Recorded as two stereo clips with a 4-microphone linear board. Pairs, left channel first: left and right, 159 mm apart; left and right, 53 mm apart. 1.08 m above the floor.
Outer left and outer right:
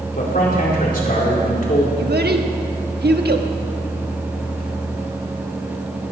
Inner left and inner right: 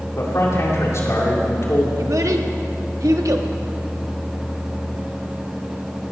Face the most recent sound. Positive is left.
turn(degrees=-75)  # may be behind; listen again after turning